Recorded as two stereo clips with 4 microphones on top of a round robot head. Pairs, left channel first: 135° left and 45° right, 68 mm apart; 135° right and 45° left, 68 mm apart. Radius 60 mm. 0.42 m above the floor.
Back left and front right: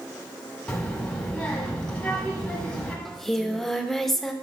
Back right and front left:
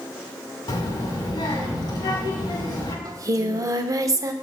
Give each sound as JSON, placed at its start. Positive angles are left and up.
{"t": 0.7, "sound": "a child speaking", "azimuth_deg": -150, "distance_m": 2.5}
{"t": 3.0, "sound": "singing", "azimuth_deg": 45, "distance_m": 0.7}